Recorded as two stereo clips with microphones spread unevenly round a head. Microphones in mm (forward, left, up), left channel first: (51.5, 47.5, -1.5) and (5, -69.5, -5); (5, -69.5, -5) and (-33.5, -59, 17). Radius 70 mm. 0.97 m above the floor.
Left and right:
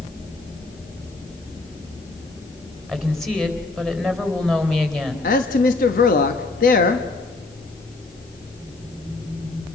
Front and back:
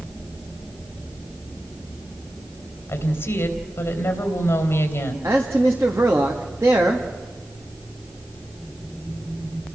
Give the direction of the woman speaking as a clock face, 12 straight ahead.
1 o'clock.